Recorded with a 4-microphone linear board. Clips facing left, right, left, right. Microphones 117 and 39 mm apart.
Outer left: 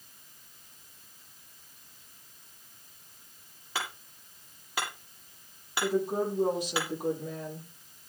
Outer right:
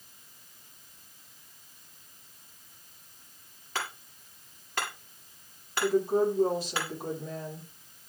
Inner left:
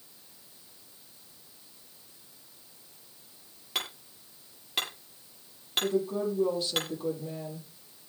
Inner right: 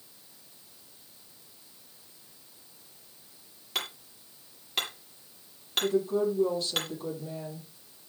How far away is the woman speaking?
About 10 m.